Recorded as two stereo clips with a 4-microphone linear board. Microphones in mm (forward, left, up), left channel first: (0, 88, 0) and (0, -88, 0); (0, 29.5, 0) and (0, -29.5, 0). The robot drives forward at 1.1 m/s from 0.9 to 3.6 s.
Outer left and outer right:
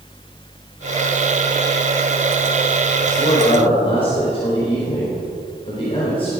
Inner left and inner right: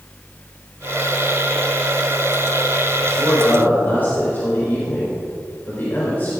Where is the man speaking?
30° left (ahead or behind), 4.5 m; by 6.3 s 35° left (ahead or behind), 4 m.